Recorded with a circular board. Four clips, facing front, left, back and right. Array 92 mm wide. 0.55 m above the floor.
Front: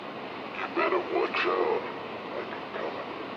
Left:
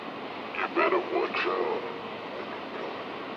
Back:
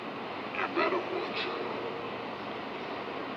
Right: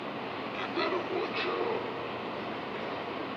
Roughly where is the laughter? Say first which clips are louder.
Left 7 dB, front 2 dB; left.